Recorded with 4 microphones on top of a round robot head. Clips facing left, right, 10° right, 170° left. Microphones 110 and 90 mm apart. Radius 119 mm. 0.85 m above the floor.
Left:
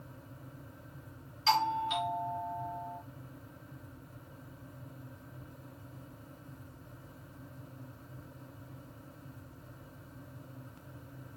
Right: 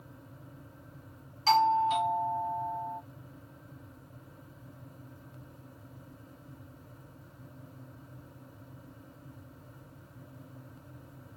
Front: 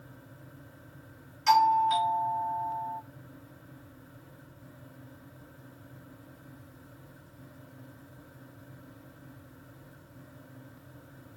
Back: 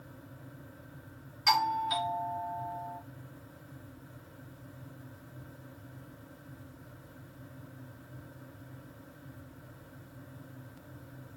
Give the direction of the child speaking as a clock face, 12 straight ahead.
No child speaking in this recording.